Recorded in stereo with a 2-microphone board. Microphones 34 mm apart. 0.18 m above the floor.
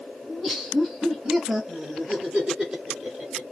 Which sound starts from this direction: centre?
Laughter, at 0.3 s.